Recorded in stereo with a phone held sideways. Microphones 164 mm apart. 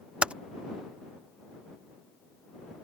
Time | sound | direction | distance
0.2 | typing on a keyboard | 5° right (ahead or behind) | ?